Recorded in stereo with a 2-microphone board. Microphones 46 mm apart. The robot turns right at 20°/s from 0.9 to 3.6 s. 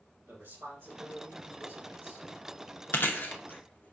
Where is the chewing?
50° left (ahead or behind), 0.5 m; by 3.9 s 40° left (ahead or behind), 0.5 m.